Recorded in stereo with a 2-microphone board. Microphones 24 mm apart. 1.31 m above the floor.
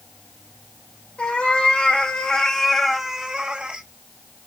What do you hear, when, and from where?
1.2 s a cat meowing: 60° left (ahead or behind), 1.8 m; by 3.9 s 45° right (ahead or behind), 1.2 m